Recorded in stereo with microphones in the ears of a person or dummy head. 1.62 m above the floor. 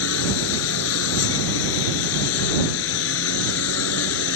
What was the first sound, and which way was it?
A lawn mower, 70° left (ahead or behind).